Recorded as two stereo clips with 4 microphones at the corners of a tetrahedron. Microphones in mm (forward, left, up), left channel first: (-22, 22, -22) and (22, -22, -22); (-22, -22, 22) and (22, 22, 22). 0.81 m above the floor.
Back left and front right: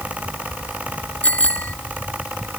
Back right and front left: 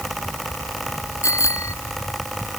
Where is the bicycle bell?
160° right.